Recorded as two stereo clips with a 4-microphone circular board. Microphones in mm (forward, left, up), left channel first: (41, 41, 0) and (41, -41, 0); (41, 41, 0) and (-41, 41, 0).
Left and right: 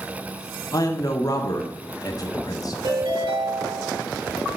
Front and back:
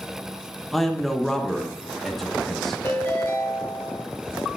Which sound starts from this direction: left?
A man speaking, at 0.7 s.